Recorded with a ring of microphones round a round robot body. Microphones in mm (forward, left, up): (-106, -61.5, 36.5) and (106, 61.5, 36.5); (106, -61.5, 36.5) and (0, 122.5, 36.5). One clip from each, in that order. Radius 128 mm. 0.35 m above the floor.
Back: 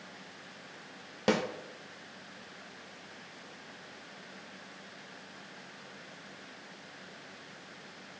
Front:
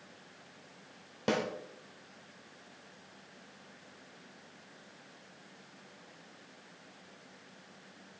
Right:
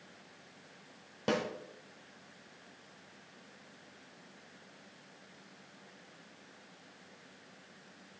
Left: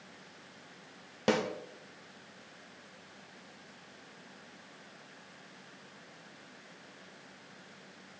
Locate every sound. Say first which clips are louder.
1.3 s a snare drum: back 3 dB, left 3 dB; 165° left, 0.9 m